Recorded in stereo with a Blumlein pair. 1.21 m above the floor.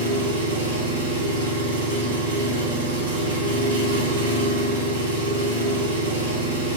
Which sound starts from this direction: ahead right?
An engine running, at 0.0 s.